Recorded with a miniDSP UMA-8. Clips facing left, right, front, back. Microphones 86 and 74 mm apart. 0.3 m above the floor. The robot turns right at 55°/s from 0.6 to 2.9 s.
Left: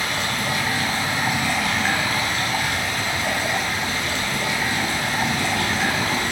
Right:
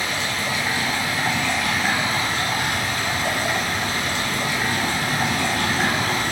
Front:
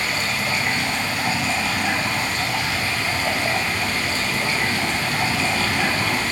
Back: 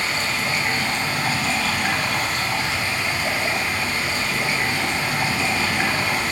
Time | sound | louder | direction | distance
0.0 | running water | left 1 dB, even | 125° left | 1.0 m